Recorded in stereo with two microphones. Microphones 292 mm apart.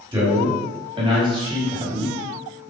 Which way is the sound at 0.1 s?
15° right (ahead or behind).